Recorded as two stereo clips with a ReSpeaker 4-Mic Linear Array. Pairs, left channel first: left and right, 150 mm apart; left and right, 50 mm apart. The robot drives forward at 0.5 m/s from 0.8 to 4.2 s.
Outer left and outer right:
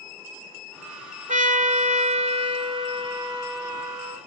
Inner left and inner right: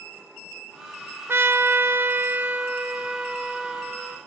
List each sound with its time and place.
1.3 s a trumpet: 55° right (ahead or behind), 0.7 m; by 4.2 s 20° right (ahead or behind), 1.5 m